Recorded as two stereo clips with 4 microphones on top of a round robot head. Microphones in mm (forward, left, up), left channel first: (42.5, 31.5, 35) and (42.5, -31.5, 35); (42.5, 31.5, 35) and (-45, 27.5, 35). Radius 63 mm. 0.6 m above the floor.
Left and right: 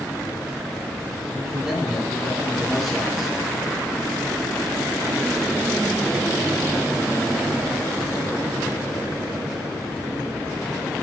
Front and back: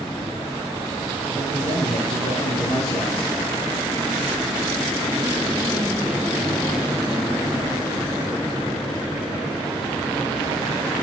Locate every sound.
1.3 s a man speaking: 5° right, 8.5 m